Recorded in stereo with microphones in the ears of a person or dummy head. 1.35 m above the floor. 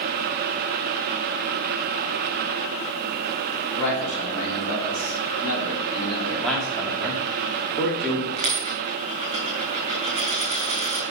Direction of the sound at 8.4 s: 30° right (ahead or behind).